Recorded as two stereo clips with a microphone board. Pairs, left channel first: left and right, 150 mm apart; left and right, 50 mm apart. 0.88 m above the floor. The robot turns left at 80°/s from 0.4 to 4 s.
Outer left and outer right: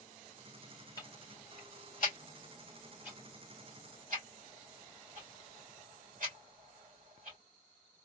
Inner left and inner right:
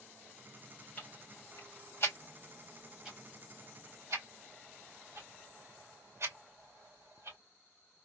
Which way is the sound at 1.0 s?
25° left (ahead or behind).